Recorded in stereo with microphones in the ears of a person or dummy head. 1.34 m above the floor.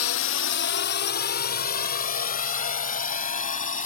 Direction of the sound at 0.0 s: 70° left (ahead or behind).